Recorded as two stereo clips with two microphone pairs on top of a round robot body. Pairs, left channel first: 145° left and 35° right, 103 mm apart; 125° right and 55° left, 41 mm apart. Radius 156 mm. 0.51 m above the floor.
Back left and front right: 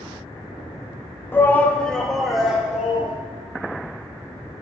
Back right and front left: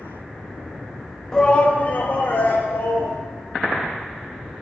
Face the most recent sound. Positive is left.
turn(degrees=-115)